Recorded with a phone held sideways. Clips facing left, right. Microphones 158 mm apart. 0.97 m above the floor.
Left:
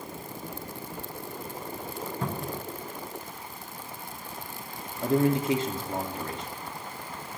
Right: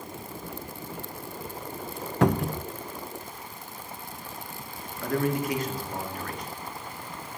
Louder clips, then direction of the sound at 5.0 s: Left 3 dB; 25° left (ahead or behind).